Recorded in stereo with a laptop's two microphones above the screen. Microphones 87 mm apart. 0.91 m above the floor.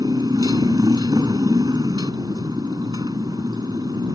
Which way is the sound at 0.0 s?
50° right (ahead or behind).